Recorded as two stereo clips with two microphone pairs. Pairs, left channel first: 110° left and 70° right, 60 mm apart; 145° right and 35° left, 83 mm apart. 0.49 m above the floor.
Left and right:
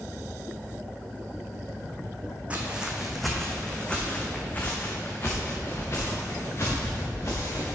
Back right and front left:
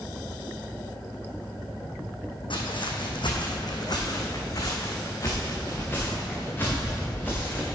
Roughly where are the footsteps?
Behind right.